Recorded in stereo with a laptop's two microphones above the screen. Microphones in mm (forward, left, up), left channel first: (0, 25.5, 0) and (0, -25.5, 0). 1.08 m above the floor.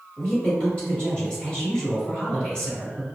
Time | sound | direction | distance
0.2 | a woman speaking | 20° left (ahead or behind) | 1.9 m